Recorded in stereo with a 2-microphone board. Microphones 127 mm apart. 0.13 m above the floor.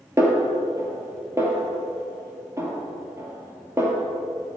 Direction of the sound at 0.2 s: 25° right (ahead or behind).